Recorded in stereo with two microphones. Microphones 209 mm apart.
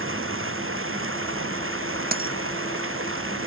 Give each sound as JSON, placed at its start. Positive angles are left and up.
{"t": 0.0, "sound": "running water", "side_deg": -85}
{"t": 2.1, "sound": "a dropped coin", "side_deg": -45}